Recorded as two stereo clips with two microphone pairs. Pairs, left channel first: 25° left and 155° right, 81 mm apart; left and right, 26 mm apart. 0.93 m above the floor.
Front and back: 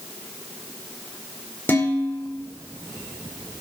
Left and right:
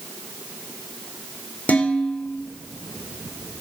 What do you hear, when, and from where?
1.7 s dishes clattering: 90° left, 2 m